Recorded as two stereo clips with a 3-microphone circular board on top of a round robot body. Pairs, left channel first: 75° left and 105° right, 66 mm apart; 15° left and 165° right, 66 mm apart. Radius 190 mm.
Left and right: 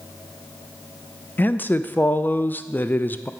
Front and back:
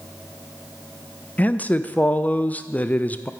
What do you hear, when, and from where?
1.4 s a man speaking: 55° left, 0.5 m